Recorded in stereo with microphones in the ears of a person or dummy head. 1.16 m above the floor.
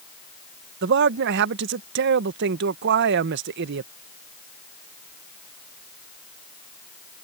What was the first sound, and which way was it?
A man speaking, 55° right (ahead or behind).